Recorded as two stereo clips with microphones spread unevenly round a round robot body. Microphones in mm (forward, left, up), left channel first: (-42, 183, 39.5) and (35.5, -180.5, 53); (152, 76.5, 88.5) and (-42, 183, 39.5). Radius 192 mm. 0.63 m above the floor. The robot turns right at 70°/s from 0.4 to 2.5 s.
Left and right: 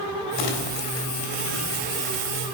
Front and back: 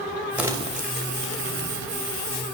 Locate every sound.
0.4 s crumpling: 70° left, 3 m; by 2.3 s 155° right, 3 m